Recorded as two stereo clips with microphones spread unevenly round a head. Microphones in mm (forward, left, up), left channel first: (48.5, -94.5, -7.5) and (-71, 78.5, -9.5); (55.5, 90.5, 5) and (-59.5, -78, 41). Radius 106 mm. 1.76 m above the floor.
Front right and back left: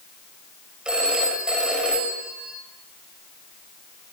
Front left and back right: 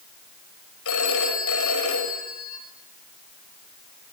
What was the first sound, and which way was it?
A phone ringing, 40° left.